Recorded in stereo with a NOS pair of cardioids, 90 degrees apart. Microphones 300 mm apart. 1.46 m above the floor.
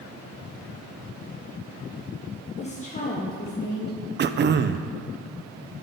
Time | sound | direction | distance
2.6 | a woman speaking | 20° left | 1.3 m
4.2 | throat clearing | 35° right | 0.5 m